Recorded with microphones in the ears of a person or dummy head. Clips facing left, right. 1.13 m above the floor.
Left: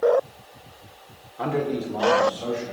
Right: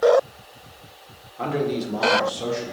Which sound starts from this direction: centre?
A man speaking, at 1.4 s.